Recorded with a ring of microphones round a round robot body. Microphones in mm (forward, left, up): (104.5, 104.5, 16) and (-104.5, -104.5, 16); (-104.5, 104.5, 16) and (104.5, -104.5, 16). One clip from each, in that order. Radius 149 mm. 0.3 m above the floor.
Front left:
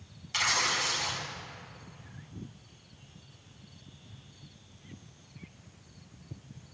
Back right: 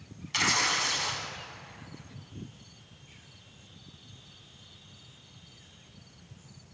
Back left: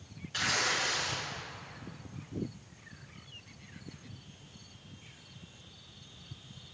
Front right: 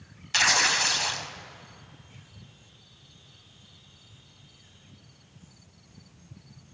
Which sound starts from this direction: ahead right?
Tearing paper, at 0.3 s.